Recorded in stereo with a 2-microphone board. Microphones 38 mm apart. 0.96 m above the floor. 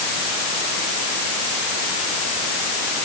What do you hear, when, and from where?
Only background noise.